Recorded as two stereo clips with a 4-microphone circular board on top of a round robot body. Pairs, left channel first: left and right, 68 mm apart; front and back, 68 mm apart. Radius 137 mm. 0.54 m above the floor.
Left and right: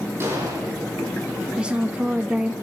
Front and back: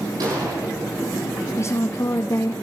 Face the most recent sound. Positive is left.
turn(degrees=-20)